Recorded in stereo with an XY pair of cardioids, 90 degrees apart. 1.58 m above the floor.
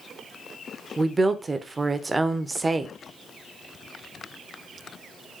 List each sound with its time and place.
1.0 s a woman speaking: 30° right, 0.5 m